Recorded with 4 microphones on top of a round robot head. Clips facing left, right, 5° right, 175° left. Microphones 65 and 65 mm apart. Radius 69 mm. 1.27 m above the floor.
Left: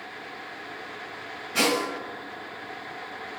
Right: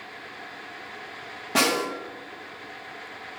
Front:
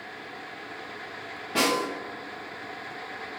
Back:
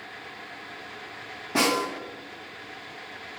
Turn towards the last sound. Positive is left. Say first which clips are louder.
# right 1 dB, back 1 dB
turn(degrees=-110)